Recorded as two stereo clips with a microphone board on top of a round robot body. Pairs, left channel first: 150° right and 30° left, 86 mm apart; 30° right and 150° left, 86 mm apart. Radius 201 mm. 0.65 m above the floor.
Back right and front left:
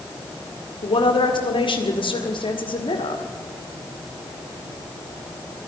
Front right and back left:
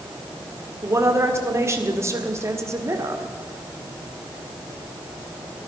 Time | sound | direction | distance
0.8 | a woman speaking | 155° right | 2.0 m